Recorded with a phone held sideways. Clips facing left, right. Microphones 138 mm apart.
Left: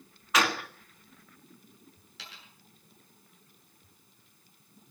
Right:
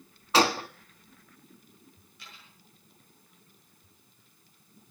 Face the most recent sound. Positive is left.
turn(degrees=85)